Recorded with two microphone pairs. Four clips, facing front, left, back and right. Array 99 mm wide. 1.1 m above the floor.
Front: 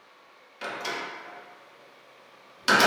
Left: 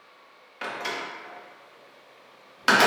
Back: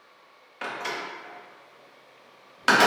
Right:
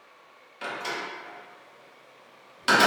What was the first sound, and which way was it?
A door slam, 145° left.